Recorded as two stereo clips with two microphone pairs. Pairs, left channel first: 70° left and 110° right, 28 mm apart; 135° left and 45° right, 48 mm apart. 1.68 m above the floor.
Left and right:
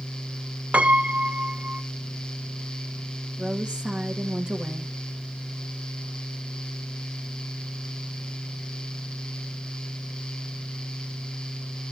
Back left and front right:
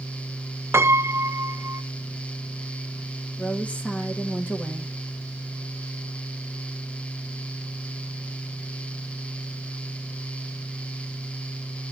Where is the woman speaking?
165° right, 2.5 m.